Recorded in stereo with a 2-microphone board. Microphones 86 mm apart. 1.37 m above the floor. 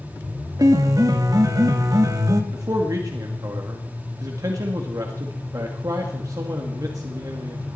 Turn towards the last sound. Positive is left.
turn(degrees=-45)  # may be behind; listen again after turning